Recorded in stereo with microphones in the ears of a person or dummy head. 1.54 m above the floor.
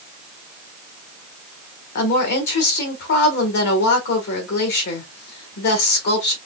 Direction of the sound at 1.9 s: 60° left (ahead or behind).